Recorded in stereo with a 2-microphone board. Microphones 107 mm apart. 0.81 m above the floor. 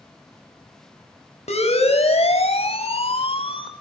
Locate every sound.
1.5 s a siren: 75° left (ahead or behind), 5.5 m; by 3.7 s 55° left (ahead or behind), 3 m